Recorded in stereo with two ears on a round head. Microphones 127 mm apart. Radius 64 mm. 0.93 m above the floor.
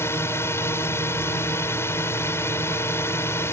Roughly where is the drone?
Centre.